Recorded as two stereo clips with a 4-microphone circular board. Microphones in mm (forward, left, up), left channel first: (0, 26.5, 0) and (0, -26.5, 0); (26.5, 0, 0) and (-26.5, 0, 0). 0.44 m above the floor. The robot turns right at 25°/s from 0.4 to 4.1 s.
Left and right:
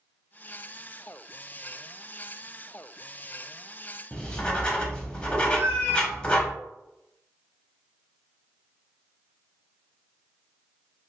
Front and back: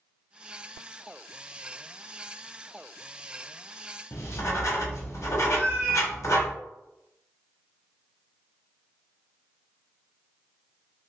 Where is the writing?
20° left, 0.7 m.